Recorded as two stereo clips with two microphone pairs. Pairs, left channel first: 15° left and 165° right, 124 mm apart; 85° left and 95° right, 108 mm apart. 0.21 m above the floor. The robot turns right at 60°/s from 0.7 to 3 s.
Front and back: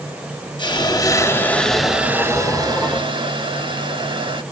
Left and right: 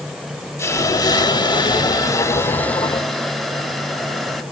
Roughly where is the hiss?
Ahead left.